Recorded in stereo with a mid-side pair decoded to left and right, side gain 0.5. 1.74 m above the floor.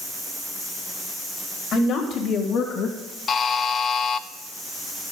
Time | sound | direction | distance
1.7 | a woman speaking | 55° left | 4 m
3.3 | a buzzer | 50° left | 0.8 m